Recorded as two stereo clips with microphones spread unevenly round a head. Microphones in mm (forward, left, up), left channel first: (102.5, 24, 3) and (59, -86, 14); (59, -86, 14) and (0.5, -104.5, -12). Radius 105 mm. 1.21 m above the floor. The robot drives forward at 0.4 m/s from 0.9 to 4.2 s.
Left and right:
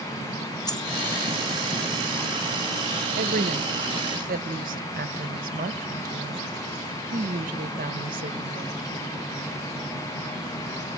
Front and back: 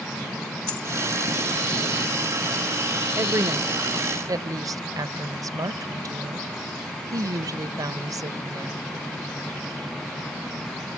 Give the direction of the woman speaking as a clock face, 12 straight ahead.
4 o'clock.